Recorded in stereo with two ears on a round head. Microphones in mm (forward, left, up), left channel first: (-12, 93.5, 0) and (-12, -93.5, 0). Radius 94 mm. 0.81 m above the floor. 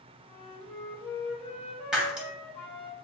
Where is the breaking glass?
5° right (ahead or behind), 0.7 m.